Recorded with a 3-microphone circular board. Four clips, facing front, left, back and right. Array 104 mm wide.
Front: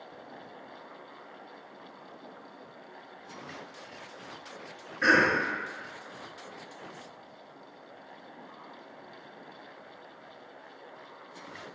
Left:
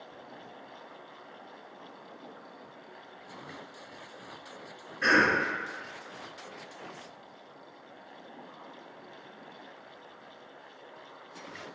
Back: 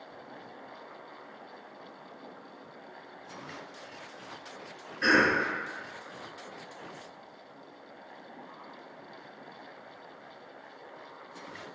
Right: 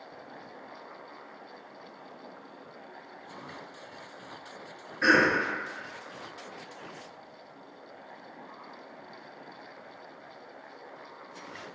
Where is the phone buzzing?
No phone buzzing in this recording.